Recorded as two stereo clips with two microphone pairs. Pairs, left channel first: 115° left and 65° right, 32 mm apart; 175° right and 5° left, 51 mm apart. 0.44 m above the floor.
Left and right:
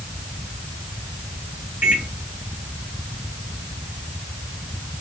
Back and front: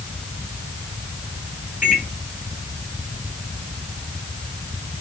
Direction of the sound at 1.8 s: 50° right.